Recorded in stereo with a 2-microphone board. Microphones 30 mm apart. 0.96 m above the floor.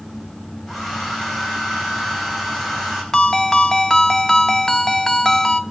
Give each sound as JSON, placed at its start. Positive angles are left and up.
{"t": 0.7, "sound": "a hair dryer", "side_deg": 0, "distance_m": 4.5}
{"t": 3.1, "sound": "a ringtone", "side_deg": 20, "distance_m": 0.6}